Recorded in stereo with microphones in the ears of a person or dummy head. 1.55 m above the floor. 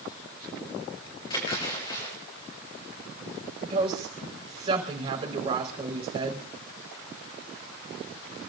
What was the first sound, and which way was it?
A splash, 30° left (ahead or behind).